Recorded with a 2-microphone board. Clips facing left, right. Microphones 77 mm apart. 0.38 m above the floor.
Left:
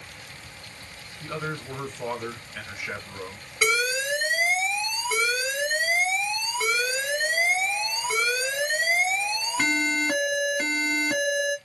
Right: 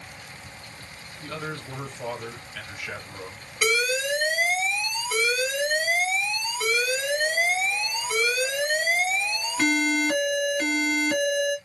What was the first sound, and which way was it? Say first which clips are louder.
A man speaking: left 2 dB; 20° left (ahead or behind).